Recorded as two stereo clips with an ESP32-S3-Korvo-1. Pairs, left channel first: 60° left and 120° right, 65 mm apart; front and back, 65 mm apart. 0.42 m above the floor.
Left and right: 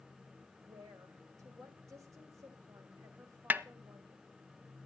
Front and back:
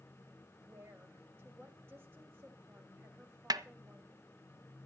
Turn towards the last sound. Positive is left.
turn(degrees=180)